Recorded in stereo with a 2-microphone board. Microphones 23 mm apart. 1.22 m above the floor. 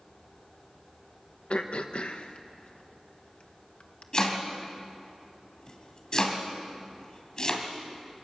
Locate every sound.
1.5 s throat clearing: 60° left (ahead or behind), 1.3 m
4.1 s chopping: 40° left (ahead or behind), 3 m